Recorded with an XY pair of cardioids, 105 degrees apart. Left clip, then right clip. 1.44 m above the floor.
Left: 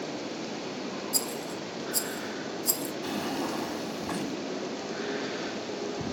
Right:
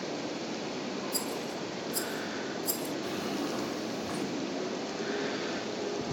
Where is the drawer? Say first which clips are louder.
Left 5 dB; 60° left, 1.7 m.